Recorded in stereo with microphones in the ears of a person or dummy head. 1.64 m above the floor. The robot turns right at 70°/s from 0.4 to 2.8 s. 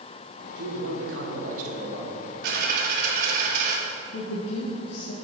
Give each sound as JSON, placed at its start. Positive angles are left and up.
{"t": 0.6, "sound": "a man speaking", "azimuth_deg": -120, "distance_m": 1.8}
{"t": 2.4, "sound": "a dropped coin", "side_deg": -60, "distance_m": 1.7}
{"t": 4.1, "sound": "a woman speaking", "side_deg": 70, "distance_m": 1.1}